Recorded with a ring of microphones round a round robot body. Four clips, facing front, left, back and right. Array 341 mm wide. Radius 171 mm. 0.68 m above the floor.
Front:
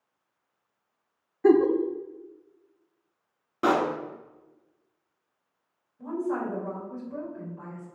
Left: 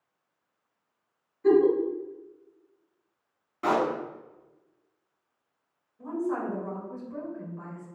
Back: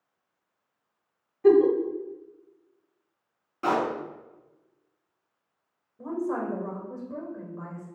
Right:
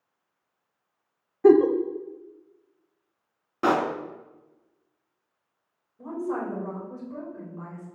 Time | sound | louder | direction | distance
1.4 | a giggle | right 4 dB, back 1 dB | 75° right | 0.7 m
3.6 | a pop | right 2 dB, front 2 dB | 55° right | 1.7 m
6.0 | a woman speaking | even, even | 160° right | 3.5 m